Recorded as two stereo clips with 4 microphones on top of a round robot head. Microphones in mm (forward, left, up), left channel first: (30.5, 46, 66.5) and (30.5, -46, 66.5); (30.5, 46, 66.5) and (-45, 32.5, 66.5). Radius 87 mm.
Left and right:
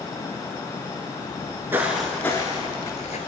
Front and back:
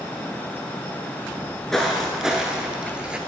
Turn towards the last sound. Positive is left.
turn(degrees=115)